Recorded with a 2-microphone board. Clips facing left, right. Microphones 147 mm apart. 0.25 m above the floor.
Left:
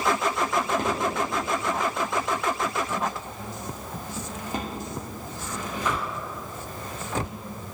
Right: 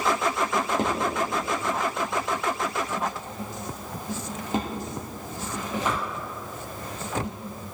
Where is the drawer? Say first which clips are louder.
Even; 20° right (ahead or behind), 3 m.